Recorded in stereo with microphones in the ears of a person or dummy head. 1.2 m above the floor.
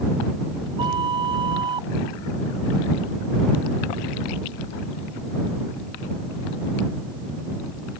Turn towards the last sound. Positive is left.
turn(degrees=-30)  # may be behind; listen again after turning